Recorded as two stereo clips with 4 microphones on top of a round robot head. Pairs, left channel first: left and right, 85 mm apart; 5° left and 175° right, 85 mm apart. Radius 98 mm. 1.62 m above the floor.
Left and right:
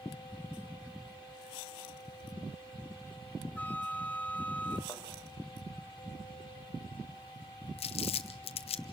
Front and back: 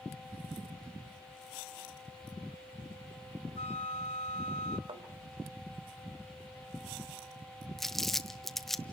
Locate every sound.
3.6 s a flute: 15° left, 1.3 m
4.9 s a thud: 165° left, 4.5 m
7.8 s crumpling: 90° left, 0.7 m